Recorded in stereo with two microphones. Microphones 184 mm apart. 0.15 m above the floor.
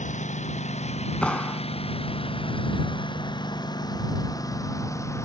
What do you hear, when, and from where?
0.0 s a lawn mower: 40° left (ahead or behind); by 5.3 s 15° left (ahead or behind)
1.2 s a clap: 5° left (ahead or behind)